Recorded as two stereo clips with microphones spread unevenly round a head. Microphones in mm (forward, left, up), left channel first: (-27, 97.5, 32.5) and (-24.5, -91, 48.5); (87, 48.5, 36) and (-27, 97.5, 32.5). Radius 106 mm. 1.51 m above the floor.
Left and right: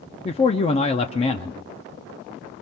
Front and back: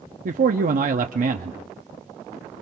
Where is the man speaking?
150° left, 0.7 m.